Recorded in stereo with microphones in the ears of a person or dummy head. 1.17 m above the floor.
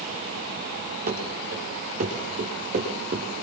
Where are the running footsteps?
50° right (ahead or behind), 8 m; by 3.4 s 40° right (ahead or behind), 6.5 m.